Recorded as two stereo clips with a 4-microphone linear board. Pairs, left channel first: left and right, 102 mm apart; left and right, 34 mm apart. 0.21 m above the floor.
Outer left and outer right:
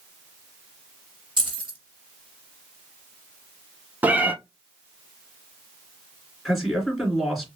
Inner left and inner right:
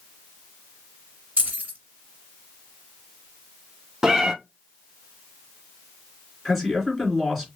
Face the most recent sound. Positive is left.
turn(degrees=0)  # may be behind; listen again after turning